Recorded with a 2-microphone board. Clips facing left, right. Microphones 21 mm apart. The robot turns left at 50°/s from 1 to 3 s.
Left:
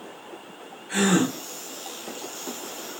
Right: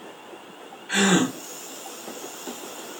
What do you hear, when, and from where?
0.9 s a gasp: 40° right (ahead or behind), 1.0 m